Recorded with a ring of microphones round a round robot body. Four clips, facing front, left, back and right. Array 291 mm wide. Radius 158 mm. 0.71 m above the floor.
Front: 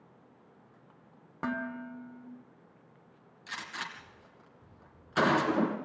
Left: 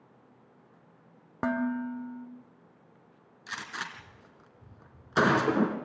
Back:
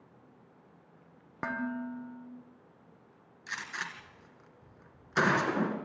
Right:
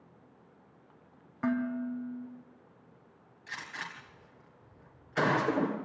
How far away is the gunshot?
About 2.5 m.